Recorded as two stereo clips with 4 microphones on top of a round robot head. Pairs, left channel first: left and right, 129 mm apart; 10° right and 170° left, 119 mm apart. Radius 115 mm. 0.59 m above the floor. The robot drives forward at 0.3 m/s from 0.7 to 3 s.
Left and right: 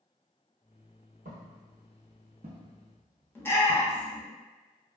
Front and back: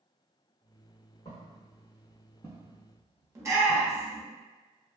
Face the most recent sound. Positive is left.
turn(degrees=145)